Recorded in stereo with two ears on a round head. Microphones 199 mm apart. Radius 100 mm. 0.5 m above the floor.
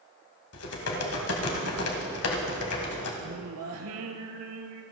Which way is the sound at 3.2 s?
80° right.